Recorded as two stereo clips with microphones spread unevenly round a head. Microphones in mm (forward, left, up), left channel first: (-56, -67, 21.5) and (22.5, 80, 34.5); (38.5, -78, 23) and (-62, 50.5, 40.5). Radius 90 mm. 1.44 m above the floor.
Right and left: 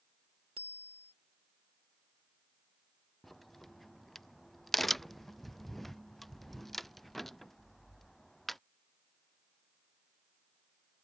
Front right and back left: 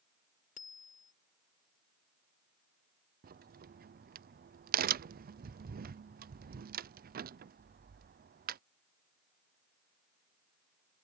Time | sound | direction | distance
0.6 | a bicycle bell | straight ahead | ?
3.2 | a crack | 155° left | ?